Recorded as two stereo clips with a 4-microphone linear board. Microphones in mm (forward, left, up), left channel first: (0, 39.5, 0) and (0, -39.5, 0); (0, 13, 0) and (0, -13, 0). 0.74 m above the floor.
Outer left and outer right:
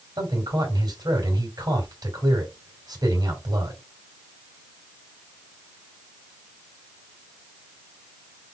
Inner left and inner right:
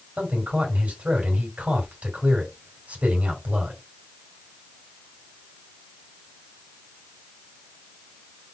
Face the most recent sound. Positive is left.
turn(degrees=-60)  # may be behind; listen again after turning